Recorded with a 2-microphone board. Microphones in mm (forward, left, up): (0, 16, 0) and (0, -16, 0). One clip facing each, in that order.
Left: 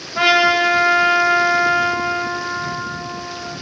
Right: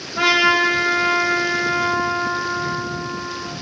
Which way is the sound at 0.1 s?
30° left (ahead or behind).